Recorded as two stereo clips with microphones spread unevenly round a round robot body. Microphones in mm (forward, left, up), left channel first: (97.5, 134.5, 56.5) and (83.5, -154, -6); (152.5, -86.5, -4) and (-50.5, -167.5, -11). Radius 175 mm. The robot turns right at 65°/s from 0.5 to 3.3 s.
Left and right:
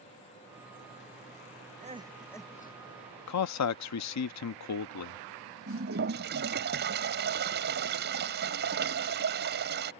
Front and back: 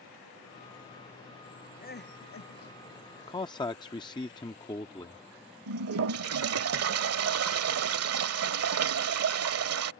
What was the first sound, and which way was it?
Crying, 30° right.